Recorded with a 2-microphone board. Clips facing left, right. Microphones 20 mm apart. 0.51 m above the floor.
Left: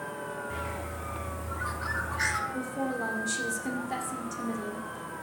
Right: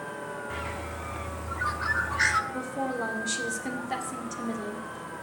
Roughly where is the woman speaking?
Centre.